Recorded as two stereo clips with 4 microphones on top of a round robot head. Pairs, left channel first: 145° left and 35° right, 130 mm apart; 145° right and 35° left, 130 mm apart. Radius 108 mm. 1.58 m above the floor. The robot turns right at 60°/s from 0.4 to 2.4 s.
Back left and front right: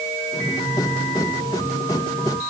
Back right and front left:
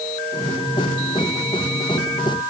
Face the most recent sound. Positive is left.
No sound to turn to.